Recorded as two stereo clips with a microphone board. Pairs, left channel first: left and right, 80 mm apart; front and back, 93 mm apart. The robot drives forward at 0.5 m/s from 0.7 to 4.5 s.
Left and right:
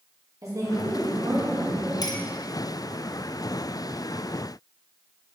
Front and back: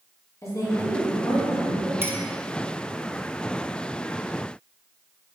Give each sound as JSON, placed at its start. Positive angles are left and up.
{"t": 0.4, "sound": "a woman speaking", "azimuth_deg": -50, "distance_m": 2.0}
{"t": 2.0, "sound": "a clink", "azimuth_deg": 115, "distance_m": 0.7}